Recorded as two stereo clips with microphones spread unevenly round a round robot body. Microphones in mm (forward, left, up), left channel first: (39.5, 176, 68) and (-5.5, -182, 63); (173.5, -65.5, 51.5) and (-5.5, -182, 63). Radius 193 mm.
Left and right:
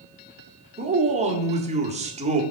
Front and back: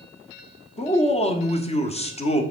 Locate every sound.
0.8 s a man speaking: 25° right, 1.4 m